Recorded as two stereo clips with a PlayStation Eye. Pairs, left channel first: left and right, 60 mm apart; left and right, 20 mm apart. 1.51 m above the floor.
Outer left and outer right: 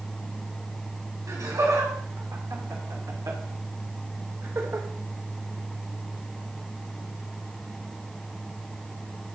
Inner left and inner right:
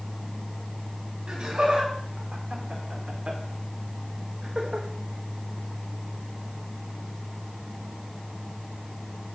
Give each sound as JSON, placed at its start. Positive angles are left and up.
{"t": 1.3, "sound": "laughter", "side_deg": -85, "distance_m": 4.0}